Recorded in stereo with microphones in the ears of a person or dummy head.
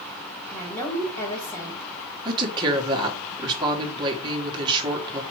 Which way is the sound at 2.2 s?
20° right (ahead or behind).